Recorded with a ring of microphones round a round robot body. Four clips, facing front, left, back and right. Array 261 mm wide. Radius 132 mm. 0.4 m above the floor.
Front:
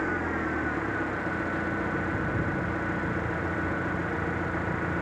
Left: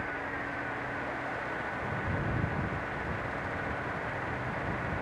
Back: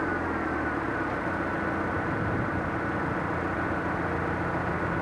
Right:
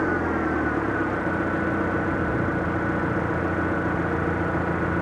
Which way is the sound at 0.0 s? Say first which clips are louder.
Right 13 dB, back 1 dB; 85° right.